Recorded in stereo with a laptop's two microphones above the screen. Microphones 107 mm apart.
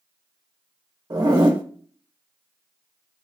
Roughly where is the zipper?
Right.